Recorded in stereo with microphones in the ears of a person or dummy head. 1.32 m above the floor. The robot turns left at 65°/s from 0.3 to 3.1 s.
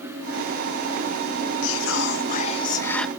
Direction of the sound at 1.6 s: 95° left.